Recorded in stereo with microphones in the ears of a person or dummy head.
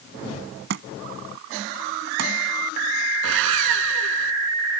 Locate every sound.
0.7 s a thud: 75° right (ahead or behind)
3.2 s sawing: 80° right